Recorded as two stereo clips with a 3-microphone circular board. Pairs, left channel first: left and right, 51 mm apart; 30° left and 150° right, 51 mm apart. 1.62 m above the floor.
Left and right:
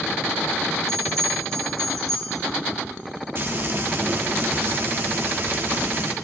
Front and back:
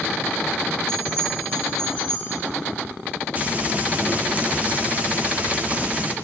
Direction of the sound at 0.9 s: 110° right.